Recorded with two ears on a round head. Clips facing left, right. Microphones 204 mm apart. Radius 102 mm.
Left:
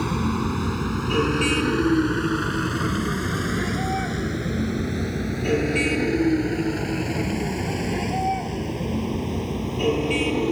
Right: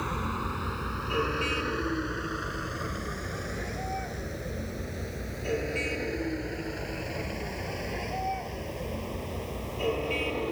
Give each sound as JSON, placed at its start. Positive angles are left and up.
{"t": 0.0, "sound": "a vehicle", "side_deg": 65}